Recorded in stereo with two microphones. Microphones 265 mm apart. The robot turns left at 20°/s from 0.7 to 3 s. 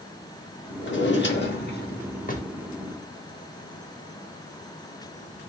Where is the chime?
I don't hear a chime.